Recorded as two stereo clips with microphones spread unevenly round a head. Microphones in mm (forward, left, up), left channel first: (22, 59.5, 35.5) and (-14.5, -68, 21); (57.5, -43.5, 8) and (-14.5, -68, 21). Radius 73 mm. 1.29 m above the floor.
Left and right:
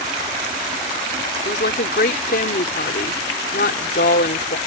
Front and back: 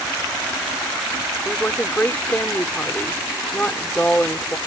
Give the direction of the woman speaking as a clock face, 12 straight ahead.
9 o'clock.